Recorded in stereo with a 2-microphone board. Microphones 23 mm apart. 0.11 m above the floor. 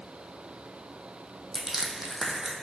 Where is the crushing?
20° right (ahead or behind), 0.7 m.